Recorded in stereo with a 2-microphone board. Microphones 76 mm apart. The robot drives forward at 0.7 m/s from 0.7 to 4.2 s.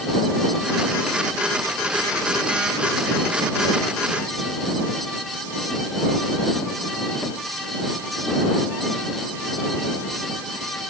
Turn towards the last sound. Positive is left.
No sound to turn to.